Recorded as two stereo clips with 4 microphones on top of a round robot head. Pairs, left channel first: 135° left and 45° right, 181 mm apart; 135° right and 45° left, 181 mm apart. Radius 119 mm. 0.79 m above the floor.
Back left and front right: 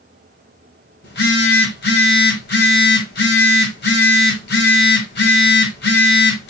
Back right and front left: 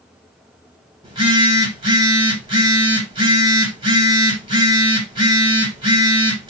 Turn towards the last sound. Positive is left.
turn(degrees=110)